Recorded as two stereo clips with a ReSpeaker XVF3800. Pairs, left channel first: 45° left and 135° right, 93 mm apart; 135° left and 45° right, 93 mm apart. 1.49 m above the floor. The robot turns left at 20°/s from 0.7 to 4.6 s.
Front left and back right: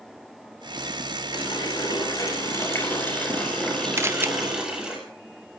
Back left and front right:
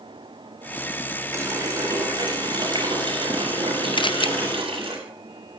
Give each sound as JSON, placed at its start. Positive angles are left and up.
{"t": 1.3, "sound": "a running tap", "azimuth_deg": 15, "distance_m": 7.0}
{"t": 4.0, "sound": "a camera shutter", "azimuth_deg": 165, "distance_m": 0.6}